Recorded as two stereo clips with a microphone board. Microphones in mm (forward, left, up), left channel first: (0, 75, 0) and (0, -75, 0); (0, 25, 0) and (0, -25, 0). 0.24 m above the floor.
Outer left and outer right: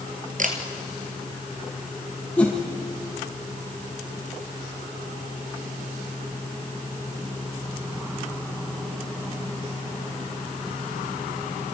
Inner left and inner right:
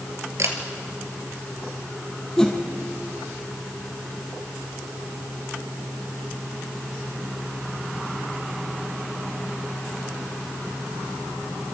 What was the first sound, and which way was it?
A camera shutter, 60° right (ahead or behind).